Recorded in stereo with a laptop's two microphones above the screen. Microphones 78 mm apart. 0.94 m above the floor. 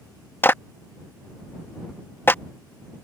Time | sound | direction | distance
0.4 | a clap | 30° left (ahead or behind) | ?